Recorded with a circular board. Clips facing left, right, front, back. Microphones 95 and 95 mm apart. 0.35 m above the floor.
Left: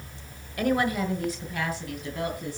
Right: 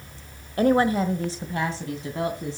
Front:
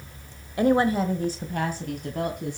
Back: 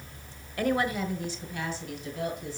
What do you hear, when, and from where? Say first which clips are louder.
0.6 s a woman speaking: right 5 dB, front 7 dB; 55° right, 1.1 m; by 2.6 s 30° right, 2.5 m